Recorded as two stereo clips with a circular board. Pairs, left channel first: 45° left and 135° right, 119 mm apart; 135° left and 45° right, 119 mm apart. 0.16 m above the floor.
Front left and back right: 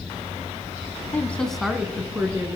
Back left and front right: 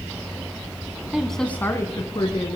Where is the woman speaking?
25° left, 1.0 m; by 2.6 s 165° left, 1.6 m.